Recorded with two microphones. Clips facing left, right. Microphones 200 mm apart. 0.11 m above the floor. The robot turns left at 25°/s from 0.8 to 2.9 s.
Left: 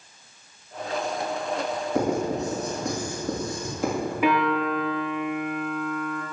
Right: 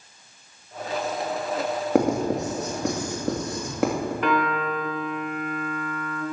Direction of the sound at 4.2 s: 10° left (ahead or behind).